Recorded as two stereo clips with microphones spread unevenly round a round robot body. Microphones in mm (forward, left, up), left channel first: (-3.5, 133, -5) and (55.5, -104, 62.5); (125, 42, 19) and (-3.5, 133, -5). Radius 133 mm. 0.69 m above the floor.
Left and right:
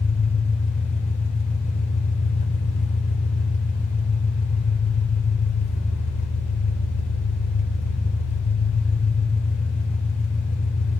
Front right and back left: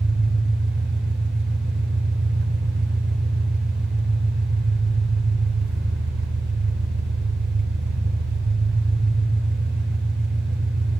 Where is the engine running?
165° left, 1.8 m.